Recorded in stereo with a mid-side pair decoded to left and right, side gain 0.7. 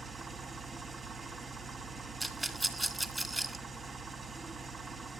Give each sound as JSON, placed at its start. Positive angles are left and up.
{"t": 0.0, "sound": "an engine running", "azimuth_deg": -20, "distance_m": 1.3}
{"t": 2.2, "sound": "a rattle", "azimuth_deg": -10, "distance_m": 1.7}